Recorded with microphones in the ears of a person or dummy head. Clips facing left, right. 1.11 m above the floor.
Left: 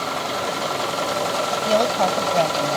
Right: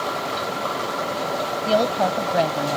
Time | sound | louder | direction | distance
1.7 | a woman speaking | even | 15° right (ahead or behind) | ?